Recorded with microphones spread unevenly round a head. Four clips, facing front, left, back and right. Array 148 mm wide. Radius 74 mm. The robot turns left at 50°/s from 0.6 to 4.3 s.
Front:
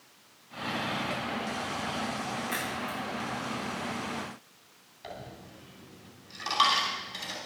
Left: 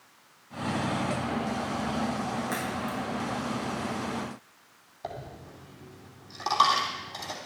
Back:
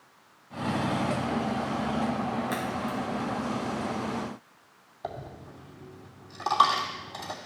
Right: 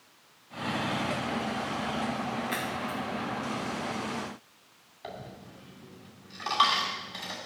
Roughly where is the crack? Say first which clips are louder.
Left 1 dB, back 4 dB; behind left.